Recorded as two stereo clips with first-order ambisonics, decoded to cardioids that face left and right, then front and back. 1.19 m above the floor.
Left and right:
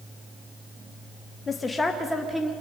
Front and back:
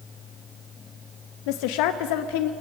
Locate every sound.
1.5 s a woman speaking: 15° left, 0.8 m; by 2.5 s 5° right, 1.5 m